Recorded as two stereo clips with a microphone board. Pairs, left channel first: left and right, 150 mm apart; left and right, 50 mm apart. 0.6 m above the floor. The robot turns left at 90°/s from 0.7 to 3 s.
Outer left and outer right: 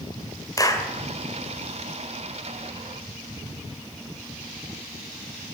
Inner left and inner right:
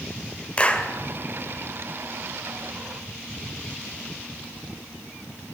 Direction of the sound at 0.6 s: 25° left (ahead or behind).